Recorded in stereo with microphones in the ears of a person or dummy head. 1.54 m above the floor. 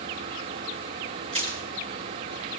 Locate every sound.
1.3 s crushing: 35° right (ahead or behind), 3.5 m